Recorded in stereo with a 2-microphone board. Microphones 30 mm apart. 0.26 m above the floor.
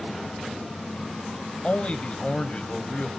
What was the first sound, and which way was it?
A man speaking, 35° left (ahead or behind).